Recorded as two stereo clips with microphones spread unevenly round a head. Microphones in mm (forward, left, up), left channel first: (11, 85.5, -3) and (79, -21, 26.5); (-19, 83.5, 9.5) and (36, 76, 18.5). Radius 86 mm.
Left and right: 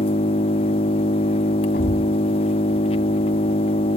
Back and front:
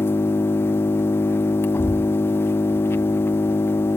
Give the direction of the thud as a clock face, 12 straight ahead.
7 o'clock.